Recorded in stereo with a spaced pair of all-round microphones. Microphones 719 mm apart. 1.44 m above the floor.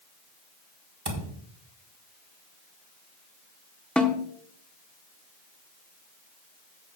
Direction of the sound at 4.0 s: Centre (ahead or behind).